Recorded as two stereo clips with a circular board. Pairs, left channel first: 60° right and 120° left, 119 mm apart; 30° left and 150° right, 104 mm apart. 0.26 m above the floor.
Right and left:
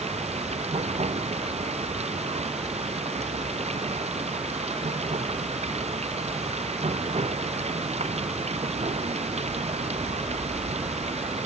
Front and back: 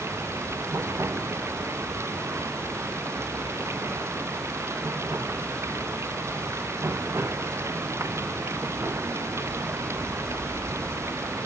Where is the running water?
145° left.